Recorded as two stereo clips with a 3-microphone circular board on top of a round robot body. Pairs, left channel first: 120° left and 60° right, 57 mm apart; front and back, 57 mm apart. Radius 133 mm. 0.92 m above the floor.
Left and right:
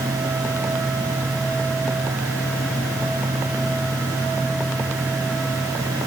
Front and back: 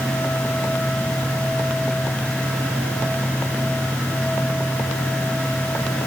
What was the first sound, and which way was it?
Only background noise.